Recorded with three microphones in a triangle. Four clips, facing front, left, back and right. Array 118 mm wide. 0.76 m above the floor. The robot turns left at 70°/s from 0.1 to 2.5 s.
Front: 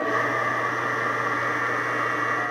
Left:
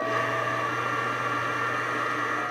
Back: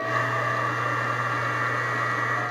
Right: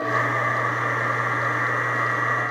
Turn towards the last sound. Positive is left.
No sound to turn to.